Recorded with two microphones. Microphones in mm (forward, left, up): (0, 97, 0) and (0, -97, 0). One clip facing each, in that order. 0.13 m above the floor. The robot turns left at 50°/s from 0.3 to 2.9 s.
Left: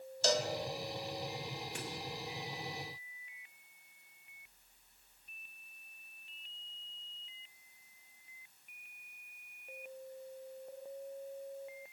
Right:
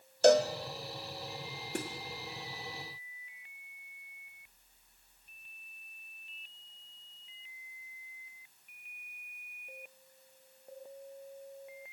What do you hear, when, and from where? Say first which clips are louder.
0.2 s a cowbell: right 10 dB; 60° right (ahead or behind), 1.4 m; by 0.5 s 65° right (ahead or behind), 1.4 m
1.8 s a snare drum: right 11 dB; 55° right (ahead or behind), 3.5 m; by 1.9 s 65° right (ahead or behind), 3.5 m